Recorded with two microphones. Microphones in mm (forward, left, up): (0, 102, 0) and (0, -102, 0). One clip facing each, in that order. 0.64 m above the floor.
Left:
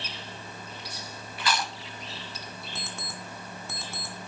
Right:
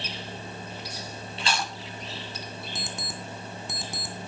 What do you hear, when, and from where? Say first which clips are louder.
1.4 s chewing: left 1 dB; 25° right (ahead or behind), 2.5 m
2.8 s an alarm clock: right 3 dB; 15° right (ahead or behind), 3 m